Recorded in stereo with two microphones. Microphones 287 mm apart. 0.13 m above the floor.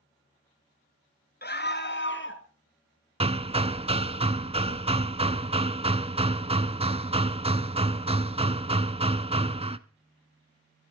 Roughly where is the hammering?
Right.